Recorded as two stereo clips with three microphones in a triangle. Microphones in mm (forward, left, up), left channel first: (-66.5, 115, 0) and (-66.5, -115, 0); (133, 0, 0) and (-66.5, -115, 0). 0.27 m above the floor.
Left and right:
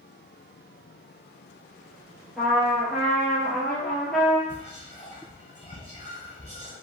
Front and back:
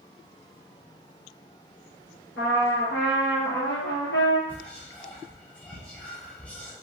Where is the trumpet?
Straight ahead, 0.9 m.